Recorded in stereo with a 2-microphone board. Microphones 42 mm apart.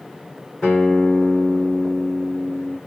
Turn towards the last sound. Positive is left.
turn(degrees=20)  # may be behind; listen again after turning